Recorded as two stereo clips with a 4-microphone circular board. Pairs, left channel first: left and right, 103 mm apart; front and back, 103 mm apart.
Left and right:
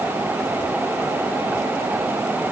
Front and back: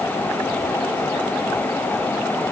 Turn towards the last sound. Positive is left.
No sound to turn to.